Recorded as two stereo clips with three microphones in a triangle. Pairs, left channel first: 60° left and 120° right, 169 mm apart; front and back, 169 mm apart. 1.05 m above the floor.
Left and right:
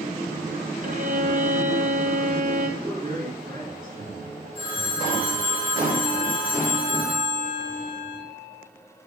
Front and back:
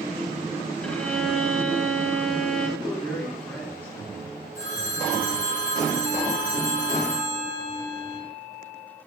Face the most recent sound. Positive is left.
turn(degrees=5)